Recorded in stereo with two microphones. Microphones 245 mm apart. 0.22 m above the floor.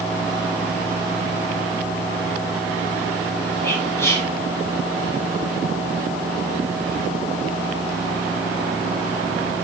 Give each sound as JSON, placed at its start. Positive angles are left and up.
{"t": 3.6, "sound": "whispering", "side_deg": 10, "distance_m": 1.1}